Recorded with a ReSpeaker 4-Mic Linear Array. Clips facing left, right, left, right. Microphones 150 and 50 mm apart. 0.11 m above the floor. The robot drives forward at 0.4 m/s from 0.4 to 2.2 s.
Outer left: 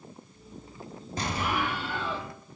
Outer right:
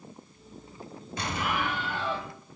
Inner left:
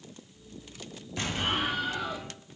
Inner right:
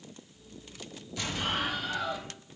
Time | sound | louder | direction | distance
1.2 | an explosion | outer left 1 dB, inner left 2 dB | 40° left (ahead or behind) | 0.7 m